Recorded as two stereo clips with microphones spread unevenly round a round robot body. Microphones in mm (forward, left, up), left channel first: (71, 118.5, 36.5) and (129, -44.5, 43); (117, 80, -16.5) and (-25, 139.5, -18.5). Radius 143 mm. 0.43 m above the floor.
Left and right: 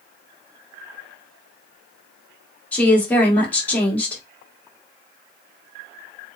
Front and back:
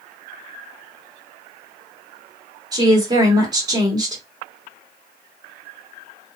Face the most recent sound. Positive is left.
turn(degrees=175)